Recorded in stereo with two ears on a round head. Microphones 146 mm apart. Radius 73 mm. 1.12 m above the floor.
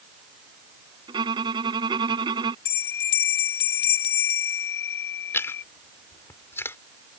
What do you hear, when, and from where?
1.1 s a violin: 25° right (ahead or behind)
2.6 s a bell: 70° left (ahead or behind)
5.3 s chewing: 15° left (ahead or behind)